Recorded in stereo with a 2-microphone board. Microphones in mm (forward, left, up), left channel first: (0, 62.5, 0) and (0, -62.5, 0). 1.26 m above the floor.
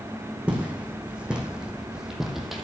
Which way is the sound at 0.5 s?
10° right (ahead or behind).